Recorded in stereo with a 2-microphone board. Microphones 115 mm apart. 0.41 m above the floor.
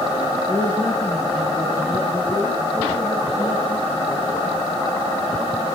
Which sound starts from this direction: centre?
A woman speaking, at 0.5 s.